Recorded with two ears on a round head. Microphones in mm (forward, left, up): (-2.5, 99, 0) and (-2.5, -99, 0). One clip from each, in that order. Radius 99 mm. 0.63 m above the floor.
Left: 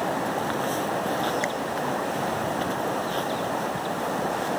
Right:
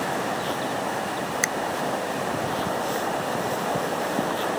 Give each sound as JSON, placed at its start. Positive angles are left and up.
{"t": 1.4, "sound": "a finger snap", "side_deg": -75}